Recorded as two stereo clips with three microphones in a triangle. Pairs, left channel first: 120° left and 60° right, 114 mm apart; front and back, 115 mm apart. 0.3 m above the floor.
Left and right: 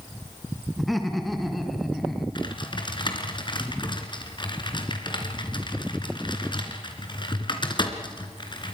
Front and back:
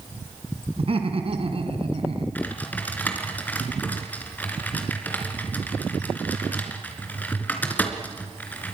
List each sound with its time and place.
0.8 s laughter: 150° right, 3 m
2.4 s typing on a keyboard: 75° left, 3 m